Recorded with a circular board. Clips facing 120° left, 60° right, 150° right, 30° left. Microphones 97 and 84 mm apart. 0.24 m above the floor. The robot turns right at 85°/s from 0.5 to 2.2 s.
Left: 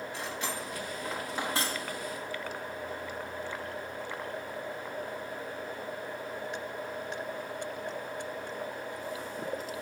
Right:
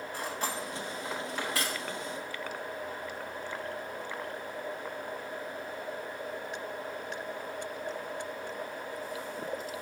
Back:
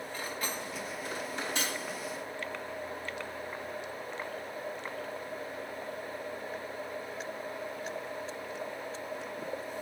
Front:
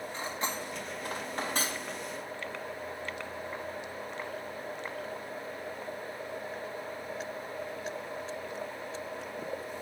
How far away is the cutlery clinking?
About 1.2 m.